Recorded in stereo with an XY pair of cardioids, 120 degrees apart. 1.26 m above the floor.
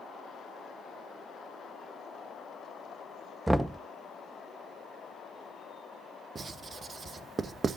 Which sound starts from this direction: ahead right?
Writing, at 6.3 s.